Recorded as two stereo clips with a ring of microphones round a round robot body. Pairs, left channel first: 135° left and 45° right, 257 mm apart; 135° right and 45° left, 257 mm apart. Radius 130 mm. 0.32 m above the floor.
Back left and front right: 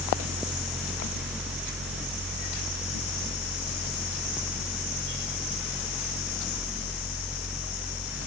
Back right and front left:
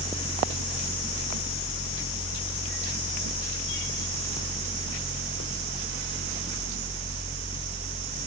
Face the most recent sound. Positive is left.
No sound to turn to.